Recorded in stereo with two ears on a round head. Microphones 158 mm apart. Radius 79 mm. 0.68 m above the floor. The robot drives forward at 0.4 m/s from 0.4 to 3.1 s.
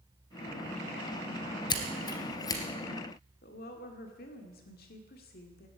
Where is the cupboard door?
No cupboard door in this recording.